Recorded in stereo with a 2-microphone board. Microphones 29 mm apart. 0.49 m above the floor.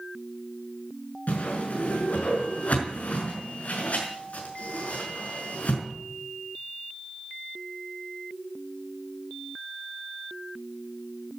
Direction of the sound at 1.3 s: 60° left (ahead or behind).